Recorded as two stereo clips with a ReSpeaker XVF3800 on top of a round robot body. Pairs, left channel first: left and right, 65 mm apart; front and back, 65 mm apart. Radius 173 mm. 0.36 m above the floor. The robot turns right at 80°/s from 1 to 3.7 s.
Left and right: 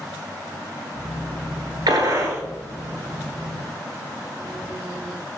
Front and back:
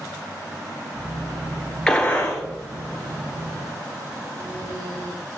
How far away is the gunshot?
About 1.6 m.